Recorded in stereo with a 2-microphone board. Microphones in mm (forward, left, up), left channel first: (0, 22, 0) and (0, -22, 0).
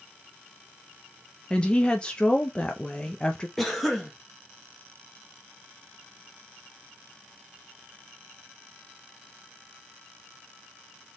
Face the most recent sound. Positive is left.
turn(degrees=5)  # may be behind; listen again after turning